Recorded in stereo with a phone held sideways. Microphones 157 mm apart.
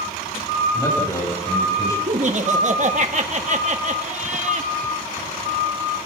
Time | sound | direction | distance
0.7 | a man speaking | 20° left (ahead or behind) | 8.5 m
2.1 | laughter | 50° right (ahead or behind) | 2.0 m